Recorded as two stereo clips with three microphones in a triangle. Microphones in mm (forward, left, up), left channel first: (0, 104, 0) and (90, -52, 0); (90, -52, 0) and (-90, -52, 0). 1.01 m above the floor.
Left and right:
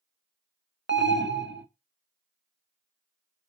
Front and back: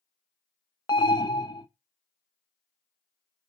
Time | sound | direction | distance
0.9 | an alarm | 70° right | 0.7 m